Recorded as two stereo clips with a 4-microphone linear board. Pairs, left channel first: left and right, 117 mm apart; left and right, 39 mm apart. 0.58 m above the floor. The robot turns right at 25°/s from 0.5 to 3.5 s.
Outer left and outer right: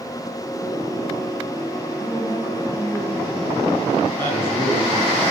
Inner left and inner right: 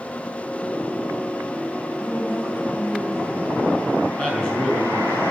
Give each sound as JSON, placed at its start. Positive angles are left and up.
{"t": 2.0, "sound": "a woman speaking", "azimuth_deg": -25, "distance_m": 4.5}
{"t": 4.2, "sound": "a man speaking", "side_deg": 20, "distance_m": 3.5}